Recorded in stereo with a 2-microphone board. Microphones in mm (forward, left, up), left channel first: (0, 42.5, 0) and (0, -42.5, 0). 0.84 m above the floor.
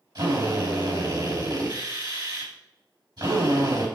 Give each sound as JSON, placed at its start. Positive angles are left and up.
{"t": 0.1, "sound": "a drill", "side_deg": -60, "distance_m": 4.5}